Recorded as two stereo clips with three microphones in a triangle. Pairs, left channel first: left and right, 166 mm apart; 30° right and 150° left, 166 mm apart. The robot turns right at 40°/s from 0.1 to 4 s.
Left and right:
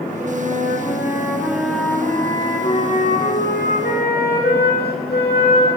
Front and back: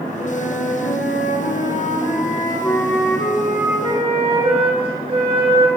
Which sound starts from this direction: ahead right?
A flute, at 0.2 s.